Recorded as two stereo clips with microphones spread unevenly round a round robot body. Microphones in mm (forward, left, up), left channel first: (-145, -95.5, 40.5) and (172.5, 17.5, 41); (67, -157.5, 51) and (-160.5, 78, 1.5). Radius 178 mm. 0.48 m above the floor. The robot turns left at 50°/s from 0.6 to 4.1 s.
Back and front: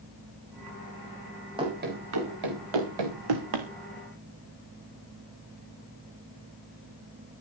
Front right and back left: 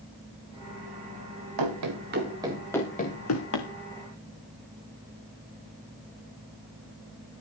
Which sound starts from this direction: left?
Running footsteps, at 1.6 s.